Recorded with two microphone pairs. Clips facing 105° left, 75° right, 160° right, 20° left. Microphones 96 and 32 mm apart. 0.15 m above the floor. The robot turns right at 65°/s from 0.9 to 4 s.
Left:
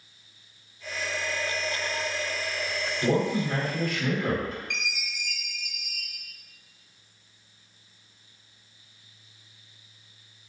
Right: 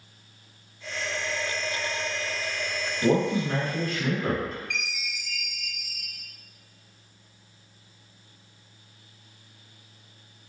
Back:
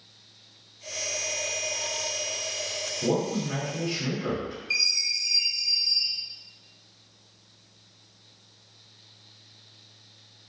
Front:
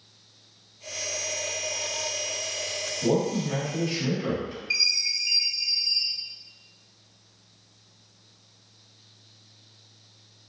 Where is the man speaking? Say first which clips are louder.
Right 2 dB, front 2 dB; 130° right, 1.3 m; by 4.6 s 70° right, 1.3 m.